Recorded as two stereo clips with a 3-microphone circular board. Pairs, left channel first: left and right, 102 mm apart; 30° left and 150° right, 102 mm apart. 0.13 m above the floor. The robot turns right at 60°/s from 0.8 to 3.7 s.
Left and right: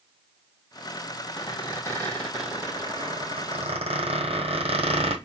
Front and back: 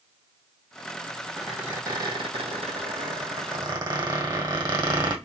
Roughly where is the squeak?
Behind left.